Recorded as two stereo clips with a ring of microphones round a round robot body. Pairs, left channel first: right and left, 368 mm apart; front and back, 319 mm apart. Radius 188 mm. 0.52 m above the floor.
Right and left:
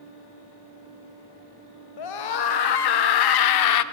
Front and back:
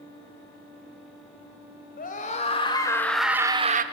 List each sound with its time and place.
2.0 s a scream: 65° right, 2 m; by 3.8 s 120° right, 1.1 m